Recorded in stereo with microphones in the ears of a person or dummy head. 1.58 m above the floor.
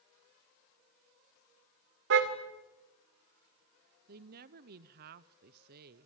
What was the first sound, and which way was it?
A car horn, 65° right (ahead or behind).